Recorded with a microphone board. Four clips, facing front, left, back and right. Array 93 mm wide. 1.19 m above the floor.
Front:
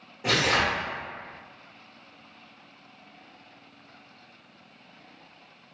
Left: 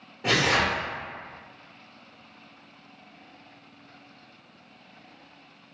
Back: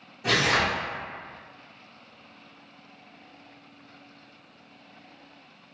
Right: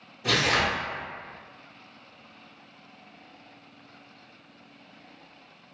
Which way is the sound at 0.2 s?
60° left.